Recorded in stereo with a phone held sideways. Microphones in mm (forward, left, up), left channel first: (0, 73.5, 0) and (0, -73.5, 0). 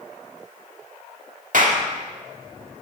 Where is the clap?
65° right (ahead or behind), 1.9 m.